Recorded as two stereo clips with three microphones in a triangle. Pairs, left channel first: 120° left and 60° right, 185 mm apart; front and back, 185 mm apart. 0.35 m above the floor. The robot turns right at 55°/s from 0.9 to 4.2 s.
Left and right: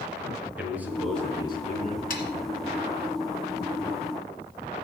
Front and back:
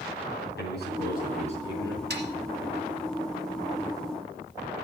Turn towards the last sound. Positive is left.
turn(degrees=-90)